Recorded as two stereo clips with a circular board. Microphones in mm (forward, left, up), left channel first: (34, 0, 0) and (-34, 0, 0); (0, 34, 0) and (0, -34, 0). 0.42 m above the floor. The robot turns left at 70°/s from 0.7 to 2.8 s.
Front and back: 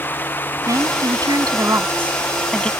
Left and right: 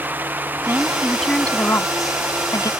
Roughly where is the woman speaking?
Behind right.